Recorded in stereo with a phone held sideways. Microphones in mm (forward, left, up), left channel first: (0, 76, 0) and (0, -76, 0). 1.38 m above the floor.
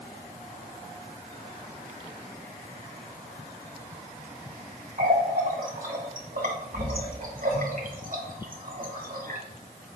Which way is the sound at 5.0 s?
65° right (ahead or behind).